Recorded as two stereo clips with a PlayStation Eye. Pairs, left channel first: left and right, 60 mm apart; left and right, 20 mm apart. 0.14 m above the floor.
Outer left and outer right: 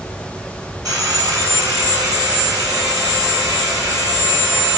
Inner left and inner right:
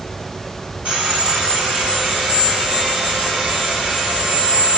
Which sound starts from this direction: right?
Sawing, at 0.8 s.